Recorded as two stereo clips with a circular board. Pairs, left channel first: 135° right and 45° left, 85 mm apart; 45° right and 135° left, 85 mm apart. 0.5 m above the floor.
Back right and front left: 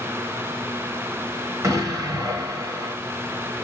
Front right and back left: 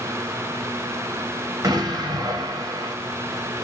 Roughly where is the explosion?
Left.